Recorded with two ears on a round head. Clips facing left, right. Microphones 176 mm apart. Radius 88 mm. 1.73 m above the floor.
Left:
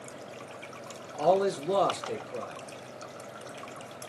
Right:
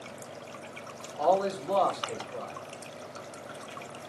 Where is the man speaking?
30° left (ahead or behind), 2.0 m.